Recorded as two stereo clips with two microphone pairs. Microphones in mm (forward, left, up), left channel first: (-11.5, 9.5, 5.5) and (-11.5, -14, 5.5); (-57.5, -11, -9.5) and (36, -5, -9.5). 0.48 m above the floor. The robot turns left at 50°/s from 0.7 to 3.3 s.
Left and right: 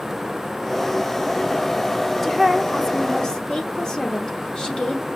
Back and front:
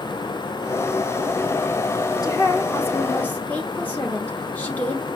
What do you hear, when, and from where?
2.2 s a woman speaking: 175° left, 0.8 m; by 5.1 s 120° left, 0.8 m